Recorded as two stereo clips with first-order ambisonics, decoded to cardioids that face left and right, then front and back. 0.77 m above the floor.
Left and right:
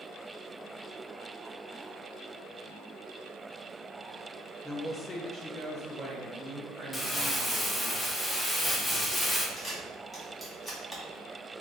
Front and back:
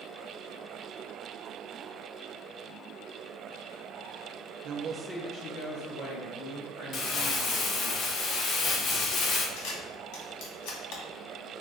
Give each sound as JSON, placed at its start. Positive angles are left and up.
{"t": 4.6, "sound": "a woman speaking", "azimuth_deg": 170, "distance_m": 0.7}
{"t": 6.9, "sound": "crumpling", "azimuth_deg": 20, "distance_m": 0.7}
{"t": 9.6, "sound": "a camera shutter", "azimuth_deg": 10, "distance_m": 1.5}